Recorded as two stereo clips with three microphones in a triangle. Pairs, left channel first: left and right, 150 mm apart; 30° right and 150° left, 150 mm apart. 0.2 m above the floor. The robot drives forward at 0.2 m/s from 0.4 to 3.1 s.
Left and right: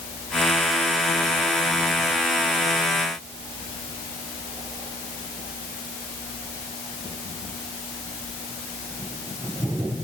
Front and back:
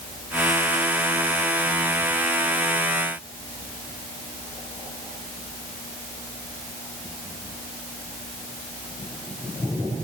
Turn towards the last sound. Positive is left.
No sound to turn to.